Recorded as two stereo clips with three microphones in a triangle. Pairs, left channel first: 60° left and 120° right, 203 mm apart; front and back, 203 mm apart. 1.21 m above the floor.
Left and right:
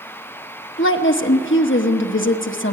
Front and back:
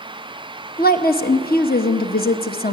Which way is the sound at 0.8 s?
45° left.